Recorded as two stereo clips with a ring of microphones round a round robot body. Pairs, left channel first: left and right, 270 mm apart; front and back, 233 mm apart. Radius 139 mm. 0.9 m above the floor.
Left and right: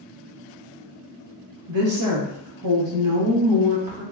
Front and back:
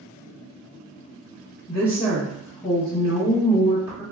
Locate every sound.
1.7 s a woman speaking: 70° right, 1.0 m